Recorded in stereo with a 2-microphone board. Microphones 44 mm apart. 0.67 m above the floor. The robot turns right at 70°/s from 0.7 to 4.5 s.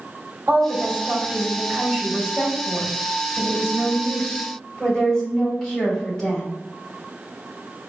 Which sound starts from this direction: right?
A woman speaking, at 0.5 s.